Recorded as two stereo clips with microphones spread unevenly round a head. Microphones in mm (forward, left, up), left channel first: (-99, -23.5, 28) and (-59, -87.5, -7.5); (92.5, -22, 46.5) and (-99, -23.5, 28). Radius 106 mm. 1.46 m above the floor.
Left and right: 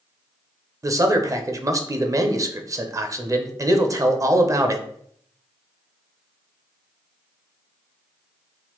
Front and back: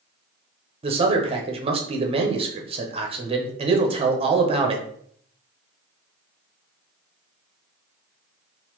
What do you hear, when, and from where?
0.8 s a man speaking: 115° right, 0.7 m